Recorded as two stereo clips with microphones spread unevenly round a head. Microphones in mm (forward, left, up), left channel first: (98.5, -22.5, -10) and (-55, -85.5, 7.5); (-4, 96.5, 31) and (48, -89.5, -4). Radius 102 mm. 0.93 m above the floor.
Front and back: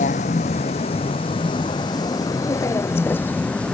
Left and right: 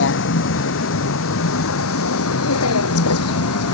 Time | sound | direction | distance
0.0 | a vehicle | 80° left | ?